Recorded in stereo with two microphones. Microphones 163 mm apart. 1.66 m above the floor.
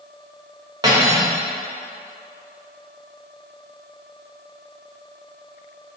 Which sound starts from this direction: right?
Cutlery clinking, at 0.8 s.